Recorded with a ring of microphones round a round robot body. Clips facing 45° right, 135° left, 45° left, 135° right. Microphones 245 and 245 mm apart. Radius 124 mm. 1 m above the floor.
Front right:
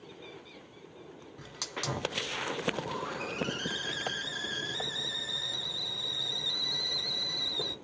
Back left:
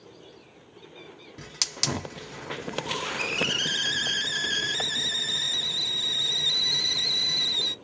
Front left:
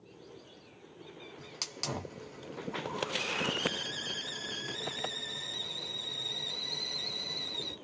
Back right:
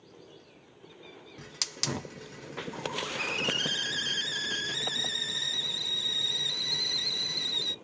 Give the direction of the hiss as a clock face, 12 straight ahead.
6 o'clock.